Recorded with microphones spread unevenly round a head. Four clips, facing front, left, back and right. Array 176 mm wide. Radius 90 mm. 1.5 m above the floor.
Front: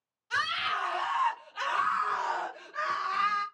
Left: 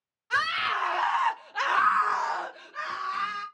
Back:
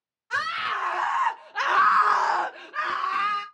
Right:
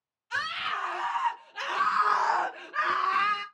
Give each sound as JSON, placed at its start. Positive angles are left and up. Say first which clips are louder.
{"t": 0.3, "sound": "a scream", "louder": "left 5 dB, back 3 dB", "azimuth_deg": 120, "distance_m": 1.2}